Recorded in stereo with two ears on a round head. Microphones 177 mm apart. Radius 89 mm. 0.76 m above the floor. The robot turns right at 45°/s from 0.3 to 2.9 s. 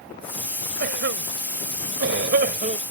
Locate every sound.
0.8 s a cough: 55° right (ahead or behind); by 2.8 s 35° right (ahead or behind)